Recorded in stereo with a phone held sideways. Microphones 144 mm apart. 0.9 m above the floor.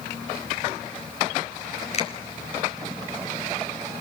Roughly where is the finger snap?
Left.